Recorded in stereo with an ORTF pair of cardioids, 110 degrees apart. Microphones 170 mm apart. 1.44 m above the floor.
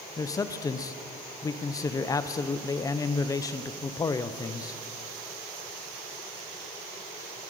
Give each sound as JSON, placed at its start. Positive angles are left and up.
{"t": 0.2, "sound": "a man speaking", "azimuth_deg": 20, "distance_m": 0.6}